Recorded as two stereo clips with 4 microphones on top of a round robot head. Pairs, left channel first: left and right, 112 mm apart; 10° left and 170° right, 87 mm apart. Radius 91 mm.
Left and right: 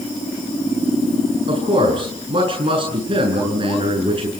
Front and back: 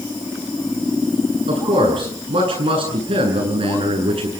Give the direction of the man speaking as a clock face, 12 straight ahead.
5 o'clock.